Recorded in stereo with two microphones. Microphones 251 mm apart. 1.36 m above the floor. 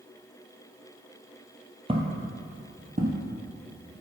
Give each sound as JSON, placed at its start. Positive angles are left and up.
{"t": 1.9, "sound": "footsteps", "side_deg": -25, "distance_m": 1.5}